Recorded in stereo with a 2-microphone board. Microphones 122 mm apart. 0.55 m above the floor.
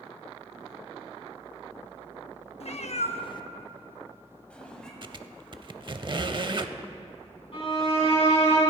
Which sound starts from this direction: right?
A squeak, at 5.0 s.